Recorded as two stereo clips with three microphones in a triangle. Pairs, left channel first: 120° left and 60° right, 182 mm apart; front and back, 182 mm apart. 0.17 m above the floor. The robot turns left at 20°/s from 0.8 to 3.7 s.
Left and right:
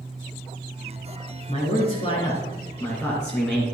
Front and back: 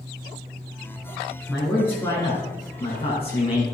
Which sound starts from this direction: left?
A man speaking, at 1.5 s.